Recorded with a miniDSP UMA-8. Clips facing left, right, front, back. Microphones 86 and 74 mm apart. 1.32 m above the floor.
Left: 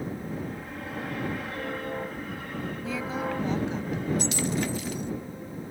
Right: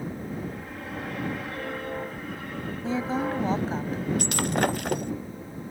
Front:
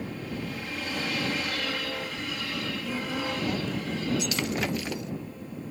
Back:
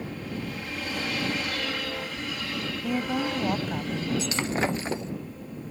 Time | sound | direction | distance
2.8 | a woman speaking | 150° right | ?
4.2 | breaking glass | 120° right | ?